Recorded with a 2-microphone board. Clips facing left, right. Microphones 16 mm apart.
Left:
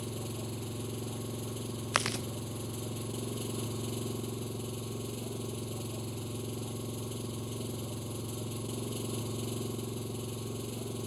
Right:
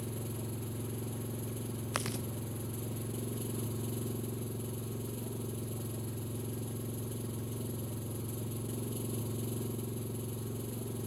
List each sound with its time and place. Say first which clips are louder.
0.0 s an engine running: left 2 dB; 30° left (ahead or behind)
1.9 s chewing: left 7 dB; 35° left (ahead or behind)